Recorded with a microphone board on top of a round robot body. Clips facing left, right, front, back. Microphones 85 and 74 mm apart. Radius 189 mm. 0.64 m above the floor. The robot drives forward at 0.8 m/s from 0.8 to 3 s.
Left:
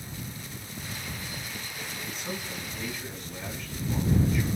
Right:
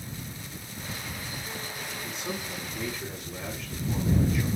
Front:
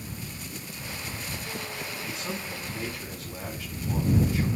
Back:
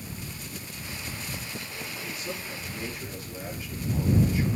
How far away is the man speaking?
About 6 m.